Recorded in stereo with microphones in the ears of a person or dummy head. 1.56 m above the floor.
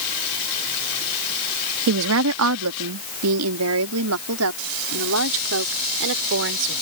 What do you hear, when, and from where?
1.9 s a woman speaking: 60° right (ahead or behind); by 6.8 s 70° right (ahead or behind)